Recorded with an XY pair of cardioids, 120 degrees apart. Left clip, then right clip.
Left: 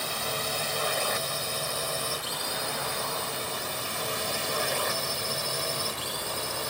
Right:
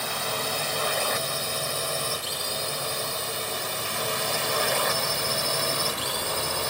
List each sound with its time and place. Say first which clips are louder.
0.0 s a drone: right 2 dB; 15° right; by 6.7 s 30° right